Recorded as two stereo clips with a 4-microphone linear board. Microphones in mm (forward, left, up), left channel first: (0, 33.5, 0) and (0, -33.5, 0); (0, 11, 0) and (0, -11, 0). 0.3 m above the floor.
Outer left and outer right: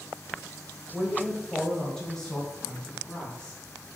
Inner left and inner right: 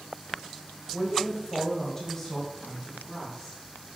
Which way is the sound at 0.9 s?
15° right (ahead or behind).